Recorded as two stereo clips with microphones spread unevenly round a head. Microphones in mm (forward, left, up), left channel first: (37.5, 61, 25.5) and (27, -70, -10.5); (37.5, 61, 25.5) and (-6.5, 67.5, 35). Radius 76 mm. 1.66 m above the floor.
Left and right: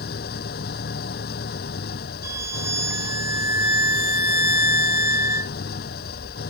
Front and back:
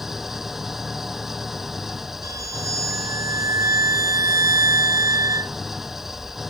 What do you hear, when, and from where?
0.0 s an engine running: 90° left
2.2 s a violin: 170° right